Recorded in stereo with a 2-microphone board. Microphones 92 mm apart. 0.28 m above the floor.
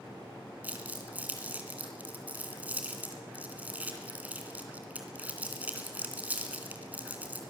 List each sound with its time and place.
0.6 s crumpling: 15° right (ahead or behind), 3 m